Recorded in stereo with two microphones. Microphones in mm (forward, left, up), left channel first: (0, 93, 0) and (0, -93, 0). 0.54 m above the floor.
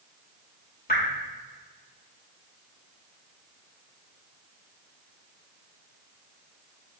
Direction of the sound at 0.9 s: 55° left (ahead or behind).